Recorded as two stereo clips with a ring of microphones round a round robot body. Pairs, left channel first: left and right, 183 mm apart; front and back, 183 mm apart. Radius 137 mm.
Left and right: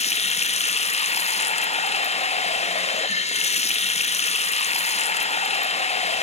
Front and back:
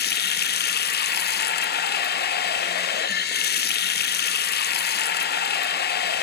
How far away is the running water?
About 0.7 m.